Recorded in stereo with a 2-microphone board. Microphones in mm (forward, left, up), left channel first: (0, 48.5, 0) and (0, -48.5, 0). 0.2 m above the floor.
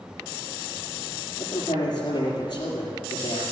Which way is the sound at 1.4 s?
45° left (ahead or behind).